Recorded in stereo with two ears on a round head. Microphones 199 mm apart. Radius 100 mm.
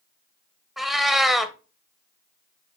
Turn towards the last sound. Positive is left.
turn(degrees=0)  # may be behind; listen again after turning